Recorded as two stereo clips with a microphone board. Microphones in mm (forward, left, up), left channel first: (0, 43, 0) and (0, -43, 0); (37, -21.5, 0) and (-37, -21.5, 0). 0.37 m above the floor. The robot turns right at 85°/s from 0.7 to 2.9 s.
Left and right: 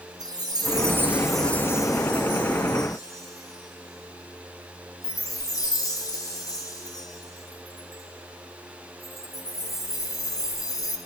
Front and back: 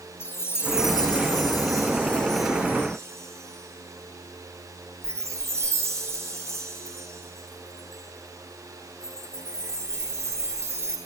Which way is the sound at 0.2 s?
55° right.